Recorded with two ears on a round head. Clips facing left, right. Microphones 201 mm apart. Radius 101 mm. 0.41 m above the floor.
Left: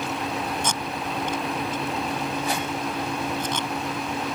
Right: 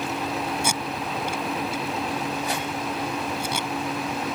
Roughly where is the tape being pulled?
Centre.